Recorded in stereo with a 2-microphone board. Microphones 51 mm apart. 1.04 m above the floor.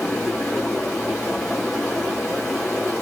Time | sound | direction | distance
0.0 | running water | 45° left (ahead or behind) | 3.5 m